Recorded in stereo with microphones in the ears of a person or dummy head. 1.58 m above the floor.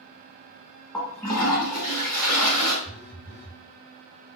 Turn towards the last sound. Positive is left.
turn(degrees=0)  # may be behind; listen again after turning